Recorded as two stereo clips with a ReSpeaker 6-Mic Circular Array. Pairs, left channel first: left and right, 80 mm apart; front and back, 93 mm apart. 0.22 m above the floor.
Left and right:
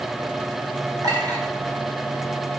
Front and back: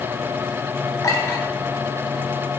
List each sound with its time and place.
1.0 s a clink: 55° right, 1.9 m